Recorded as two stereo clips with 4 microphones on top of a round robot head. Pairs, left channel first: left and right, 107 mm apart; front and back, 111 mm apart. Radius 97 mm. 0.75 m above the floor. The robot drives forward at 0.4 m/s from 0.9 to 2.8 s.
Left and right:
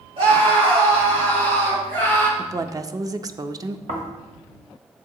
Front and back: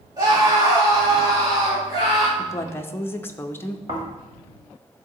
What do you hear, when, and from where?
0.2 s a scream: 125° right, 3 m; by 2.3 s 130° right, 3.5 m
2.4 s a woman speaking: 40° right, 0.6 m; by 3.8 s 60° right, 0.6 m
3.9 s snoring: 115° right, 1.8 m